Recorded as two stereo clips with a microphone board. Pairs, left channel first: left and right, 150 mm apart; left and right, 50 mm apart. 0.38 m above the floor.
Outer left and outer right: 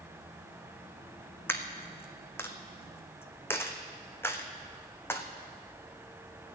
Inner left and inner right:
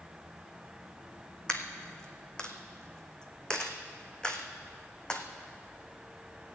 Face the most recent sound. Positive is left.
turn(degrees=15)  # may be behind; listen again after turning